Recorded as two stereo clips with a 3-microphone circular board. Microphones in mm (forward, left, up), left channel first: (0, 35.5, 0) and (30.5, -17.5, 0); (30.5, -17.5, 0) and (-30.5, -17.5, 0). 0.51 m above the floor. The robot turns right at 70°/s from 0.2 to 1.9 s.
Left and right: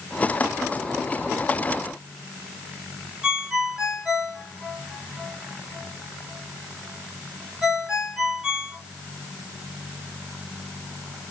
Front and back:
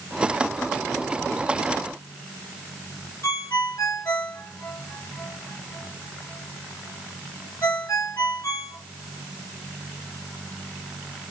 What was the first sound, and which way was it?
A ringtone, 15° left.